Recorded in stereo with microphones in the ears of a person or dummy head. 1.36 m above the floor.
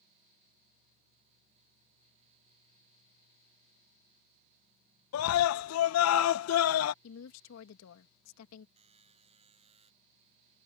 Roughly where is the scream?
Left.